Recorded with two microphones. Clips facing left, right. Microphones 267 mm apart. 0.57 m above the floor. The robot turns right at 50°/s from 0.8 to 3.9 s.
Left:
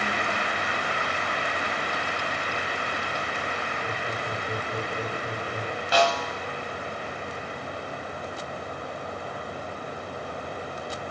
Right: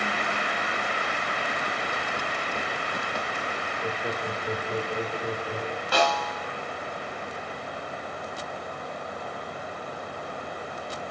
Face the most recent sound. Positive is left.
turn(degrees=-55)  # may be behind; listen again after turning